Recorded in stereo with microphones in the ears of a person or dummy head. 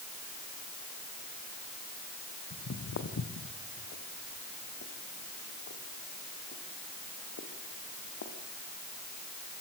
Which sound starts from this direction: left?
Footsteps, at 2.5 s.